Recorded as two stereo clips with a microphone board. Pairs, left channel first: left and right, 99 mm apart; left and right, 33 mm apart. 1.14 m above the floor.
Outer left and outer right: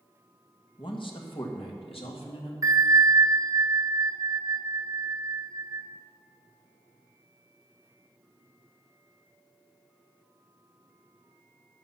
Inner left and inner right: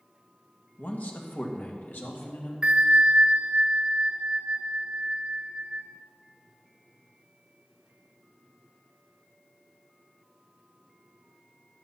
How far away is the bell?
About 1.0 m.